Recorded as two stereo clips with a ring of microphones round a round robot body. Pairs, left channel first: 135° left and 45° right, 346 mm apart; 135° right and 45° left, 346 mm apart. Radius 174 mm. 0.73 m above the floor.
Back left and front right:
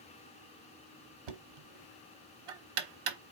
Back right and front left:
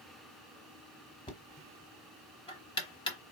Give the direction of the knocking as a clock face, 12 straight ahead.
2 o'clock.